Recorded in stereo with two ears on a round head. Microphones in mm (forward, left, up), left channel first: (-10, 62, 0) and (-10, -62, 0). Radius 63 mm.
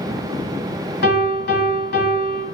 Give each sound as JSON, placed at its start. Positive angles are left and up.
{"t": 1.0, "sound": "a piano", "side_deg": 75, "distance_m": 1.7}